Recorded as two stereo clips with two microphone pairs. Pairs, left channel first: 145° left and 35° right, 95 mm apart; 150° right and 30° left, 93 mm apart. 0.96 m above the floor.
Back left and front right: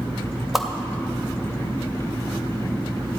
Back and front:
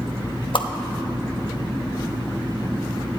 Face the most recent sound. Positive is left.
turn(degrees=-125)